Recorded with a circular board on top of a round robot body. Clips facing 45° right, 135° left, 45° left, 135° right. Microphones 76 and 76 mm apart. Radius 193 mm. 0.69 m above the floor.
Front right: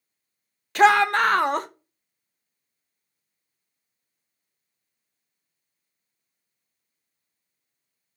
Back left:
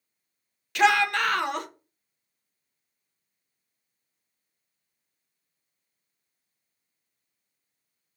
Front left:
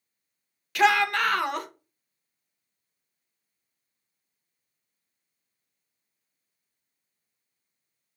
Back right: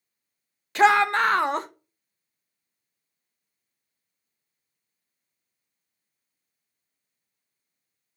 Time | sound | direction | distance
0.8 | a shout | 85° right | 0.7 m